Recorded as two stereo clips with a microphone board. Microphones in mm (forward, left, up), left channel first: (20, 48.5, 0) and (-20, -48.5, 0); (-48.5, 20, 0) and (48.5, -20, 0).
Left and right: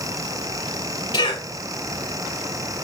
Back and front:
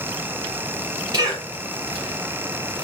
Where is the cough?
30° left, 3.5 m.